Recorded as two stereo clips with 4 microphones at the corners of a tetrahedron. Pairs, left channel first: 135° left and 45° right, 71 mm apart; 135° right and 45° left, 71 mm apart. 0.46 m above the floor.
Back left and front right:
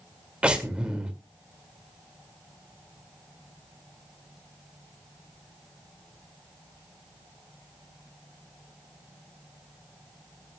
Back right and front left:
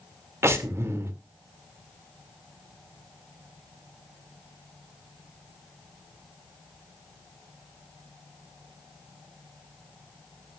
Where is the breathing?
25° left, 1.9 m.